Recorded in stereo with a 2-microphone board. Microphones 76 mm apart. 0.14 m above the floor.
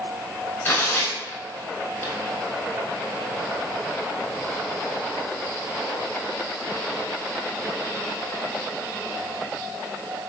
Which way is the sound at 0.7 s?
25° left (ahead or behind).